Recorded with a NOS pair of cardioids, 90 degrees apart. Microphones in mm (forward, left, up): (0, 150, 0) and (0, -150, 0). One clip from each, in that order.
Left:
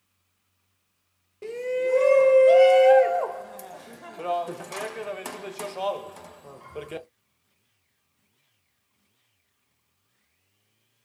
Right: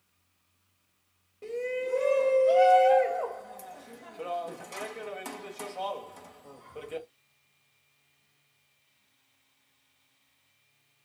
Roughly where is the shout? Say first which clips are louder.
Left 5 dB; ahead left.